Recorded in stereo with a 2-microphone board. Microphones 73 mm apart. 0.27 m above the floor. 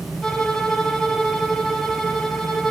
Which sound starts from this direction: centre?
A violin, at 0.2 s.